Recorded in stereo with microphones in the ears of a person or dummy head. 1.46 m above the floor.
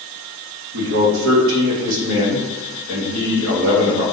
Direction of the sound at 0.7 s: 70° right (ahead or behind).